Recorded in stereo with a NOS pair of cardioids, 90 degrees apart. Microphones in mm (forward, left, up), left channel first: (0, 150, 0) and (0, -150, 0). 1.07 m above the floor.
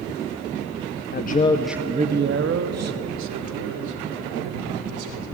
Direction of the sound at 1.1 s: 35° left.